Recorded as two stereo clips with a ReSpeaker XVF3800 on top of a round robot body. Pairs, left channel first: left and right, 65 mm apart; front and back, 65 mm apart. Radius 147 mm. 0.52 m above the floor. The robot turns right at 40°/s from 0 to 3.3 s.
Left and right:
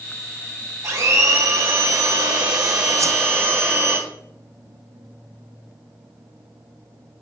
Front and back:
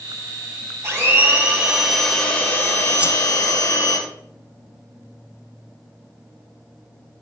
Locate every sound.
0.8 s a blender: 135° right, 3.5 m; by 4.0 s 35° right, 3.5 m
3.0 s a whoosh: 110° right, 0.7 m; by 3.2 s 100° right, 0.7 m